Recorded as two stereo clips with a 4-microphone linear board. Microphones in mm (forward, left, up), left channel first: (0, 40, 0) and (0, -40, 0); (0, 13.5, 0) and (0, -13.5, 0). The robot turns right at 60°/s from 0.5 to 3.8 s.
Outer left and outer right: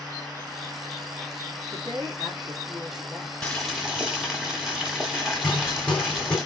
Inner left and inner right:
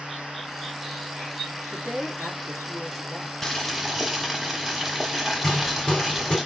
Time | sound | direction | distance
1.7 | a woman speaking | 85° right | 2 m
3.4 | boiling | 15° left (ahead or behind) | 1.5 m
5.4 | hammering | 15° left (ahead or behind) | 3.5 m